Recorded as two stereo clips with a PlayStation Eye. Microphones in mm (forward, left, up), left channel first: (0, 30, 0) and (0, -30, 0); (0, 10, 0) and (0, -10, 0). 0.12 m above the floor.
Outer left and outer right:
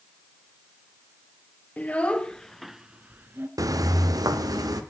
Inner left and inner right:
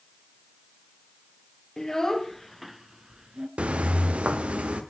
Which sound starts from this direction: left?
A child speaking, at 1.8 s.